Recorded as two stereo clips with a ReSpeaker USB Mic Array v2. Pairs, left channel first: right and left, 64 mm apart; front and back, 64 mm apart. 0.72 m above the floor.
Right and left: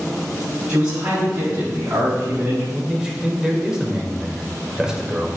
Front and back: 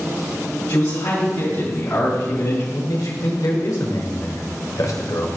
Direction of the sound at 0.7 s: 20° left.